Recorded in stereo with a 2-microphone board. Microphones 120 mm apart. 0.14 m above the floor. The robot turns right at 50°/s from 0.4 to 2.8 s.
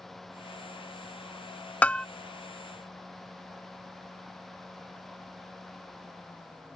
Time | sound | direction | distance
1.8 | a bell | 10° left (ahead or behind) | ?